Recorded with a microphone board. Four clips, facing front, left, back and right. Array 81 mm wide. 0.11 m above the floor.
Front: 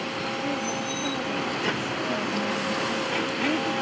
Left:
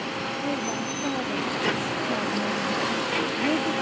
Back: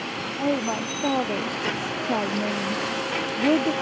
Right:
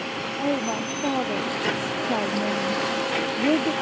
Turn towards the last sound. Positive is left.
turn(degrees=-150)